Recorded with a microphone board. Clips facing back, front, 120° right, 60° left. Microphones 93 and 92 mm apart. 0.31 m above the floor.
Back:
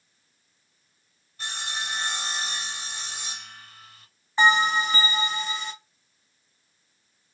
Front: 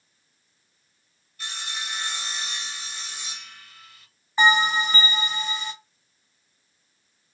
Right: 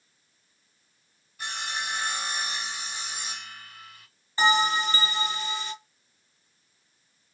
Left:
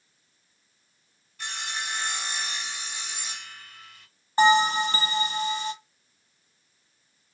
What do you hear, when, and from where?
1.4 s sawing: 165° left, 1.2 m
4.4 s a bell: 80° left, 1.7 m